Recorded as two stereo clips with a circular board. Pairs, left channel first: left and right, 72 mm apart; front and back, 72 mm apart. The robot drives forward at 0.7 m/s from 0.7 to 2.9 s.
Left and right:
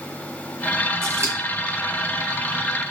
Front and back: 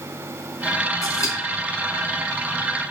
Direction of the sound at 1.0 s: 35° right.